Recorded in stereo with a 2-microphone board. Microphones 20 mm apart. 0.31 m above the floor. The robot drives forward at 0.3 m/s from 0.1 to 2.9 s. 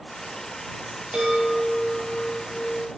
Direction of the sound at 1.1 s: 80° right.